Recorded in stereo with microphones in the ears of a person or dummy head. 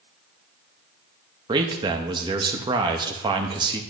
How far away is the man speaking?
About 0.6 m.